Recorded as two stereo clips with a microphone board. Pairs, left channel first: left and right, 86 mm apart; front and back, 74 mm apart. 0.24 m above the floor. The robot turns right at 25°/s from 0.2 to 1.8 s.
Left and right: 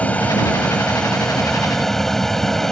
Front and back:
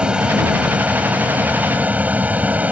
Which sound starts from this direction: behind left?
An aircraft, at 0.0 s.